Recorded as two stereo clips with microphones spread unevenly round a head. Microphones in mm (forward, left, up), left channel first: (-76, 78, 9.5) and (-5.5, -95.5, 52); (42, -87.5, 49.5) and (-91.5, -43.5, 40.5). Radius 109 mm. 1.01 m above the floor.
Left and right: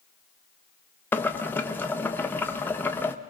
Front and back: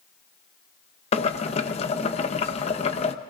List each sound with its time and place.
1.1 s boiling: 35° left, 0.7 m